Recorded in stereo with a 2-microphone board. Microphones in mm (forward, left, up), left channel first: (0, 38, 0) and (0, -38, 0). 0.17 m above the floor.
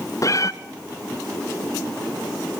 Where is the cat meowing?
45° left (ahead or behind), 0.6 m.